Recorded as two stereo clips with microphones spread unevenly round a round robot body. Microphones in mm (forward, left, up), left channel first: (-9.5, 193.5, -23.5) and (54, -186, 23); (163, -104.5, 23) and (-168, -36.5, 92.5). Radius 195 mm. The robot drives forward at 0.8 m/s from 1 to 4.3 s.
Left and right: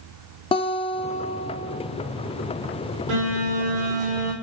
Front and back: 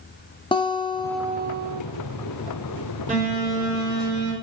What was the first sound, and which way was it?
A guitar, 40° left.